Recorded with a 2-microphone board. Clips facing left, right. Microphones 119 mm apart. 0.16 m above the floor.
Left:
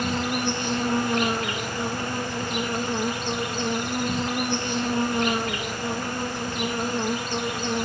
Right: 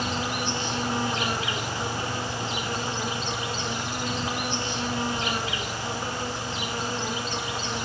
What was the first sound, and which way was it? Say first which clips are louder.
An insect: left 3 dB; 55° left (ahead or behind).